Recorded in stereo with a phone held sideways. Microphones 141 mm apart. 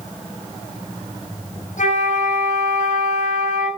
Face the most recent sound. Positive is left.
turn(degrees=70)  # may be behind; listen again after turning